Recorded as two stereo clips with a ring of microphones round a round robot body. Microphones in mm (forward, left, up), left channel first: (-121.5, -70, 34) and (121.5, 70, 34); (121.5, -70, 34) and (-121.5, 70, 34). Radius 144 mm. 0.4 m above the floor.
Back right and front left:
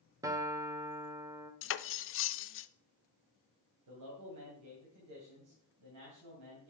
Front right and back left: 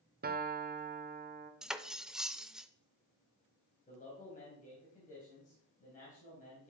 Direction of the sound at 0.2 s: 105° left.